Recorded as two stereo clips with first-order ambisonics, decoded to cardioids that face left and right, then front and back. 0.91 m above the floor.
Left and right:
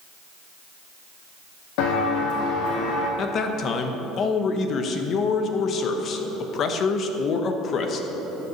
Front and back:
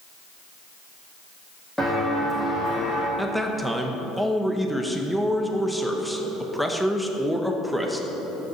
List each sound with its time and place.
1.8 s footsteps: 90° left, 2.5 m; by 3.1 s 70° left, 3 m
3.2 s a man speaking: 90° left, 0.8 m